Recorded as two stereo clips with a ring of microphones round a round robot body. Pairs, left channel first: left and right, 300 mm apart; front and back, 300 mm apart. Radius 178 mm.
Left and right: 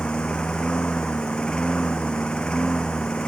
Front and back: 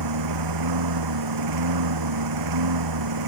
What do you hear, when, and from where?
0.0 s a lawn mower: 175° left